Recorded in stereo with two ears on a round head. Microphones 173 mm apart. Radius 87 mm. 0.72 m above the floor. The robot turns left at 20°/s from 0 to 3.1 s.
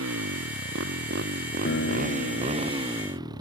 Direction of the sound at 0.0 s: 95° right.